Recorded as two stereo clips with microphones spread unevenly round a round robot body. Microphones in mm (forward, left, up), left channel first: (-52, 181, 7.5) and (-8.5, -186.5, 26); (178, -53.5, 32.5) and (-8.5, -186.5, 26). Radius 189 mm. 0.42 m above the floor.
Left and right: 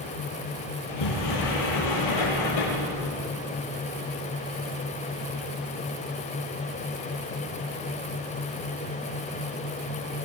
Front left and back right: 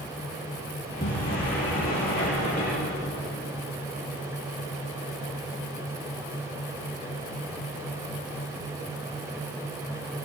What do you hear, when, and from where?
0.8 s a sliding door: 105° left, 9.5 m